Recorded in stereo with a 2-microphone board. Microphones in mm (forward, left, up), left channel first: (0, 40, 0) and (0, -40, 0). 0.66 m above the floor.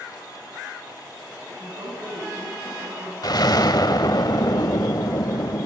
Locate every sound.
1.5 s a woman speaking: 70° right (ahead or behind), 6.5 m
3.2 s an explosion: 55° left (ahead or behind), 0.8 m